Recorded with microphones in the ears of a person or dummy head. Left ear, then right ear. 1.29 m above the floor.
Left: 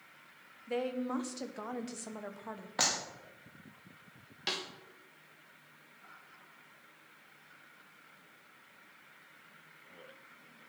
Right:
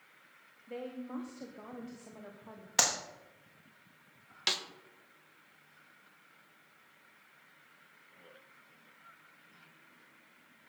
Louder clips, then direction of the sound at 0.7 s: Left 7 dB; 35° left (ahead or behind).